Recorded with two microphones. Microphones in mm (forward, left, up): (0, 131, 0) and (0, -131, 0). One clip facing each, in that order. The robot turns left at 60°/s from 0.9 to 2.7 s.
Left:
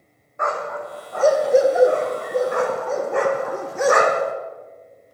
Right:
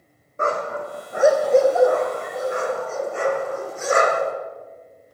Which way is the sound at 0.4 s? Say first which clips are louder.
Right 2 dB; 35° right (ahead or behind).